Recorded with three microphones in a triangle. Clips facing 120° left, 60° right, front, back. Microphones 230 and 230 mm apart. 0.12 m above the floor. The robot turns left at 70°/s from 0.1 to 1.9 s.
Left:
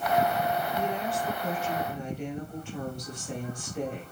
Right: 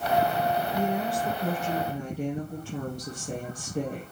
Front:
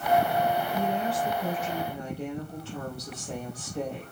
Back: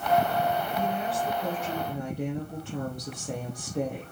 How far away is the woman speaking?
About 3.5 m.